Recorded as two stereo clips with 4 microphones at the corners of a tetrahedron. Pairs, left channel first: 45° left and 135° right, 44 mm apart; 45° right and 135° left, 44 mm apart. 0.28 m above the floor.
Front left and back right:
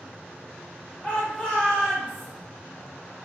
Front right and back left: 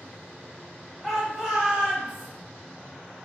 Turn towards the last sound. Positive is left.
turn(degrees=125)